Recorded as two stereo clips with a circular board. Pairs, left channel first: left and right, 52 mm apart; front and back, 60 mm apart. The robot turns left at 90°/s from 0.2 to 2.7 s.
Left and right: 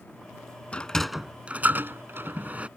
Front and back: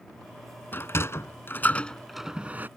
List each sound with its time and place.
0.7 s a sliding door: 35° left; by 2.7 s 145° right